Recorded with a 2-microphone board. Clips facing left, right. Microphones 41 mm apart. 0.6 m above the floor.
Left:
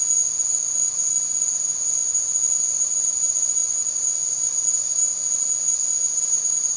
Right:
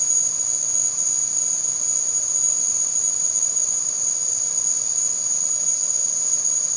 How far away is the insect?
About 2 m.